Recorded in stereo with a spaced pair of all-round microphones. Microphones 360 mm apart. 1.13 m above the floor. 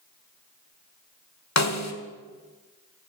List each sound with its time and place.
1.6 s a snare drum: 45° left (ahead or behind), 1.3 m